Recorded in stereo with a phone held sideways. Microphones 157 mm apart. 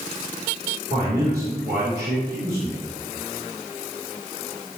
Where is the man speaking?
80° right, 3.5 m.